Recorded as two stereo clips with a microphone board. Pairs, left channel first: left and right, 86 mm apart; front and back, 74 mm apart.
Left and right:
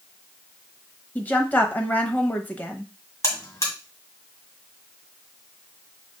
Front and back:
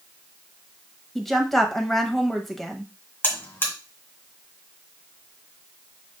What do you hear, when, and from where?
1.1 s a woman speaking: 85° left, 0.9 m
3.2 s a buzzer: 50° left, 1.8 m